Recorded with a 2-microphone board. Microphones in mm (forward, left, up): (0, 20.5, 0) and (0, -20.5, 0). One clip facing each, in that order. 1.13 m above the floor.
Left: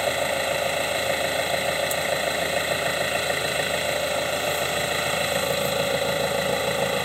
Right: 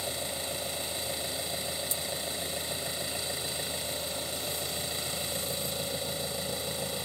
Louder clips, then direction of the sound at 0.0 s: Left 13 dB; 60° left (ahead or behind).